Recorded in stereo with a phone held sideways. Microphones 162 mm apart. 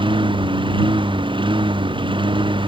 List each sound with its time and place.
0.0 s a lawn mower: 30° right (ahead or behind)